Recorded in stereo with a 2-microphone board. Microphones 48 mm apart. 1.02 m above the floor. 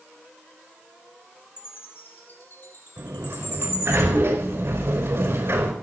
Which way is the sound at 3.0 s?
65° right (ahead or behind).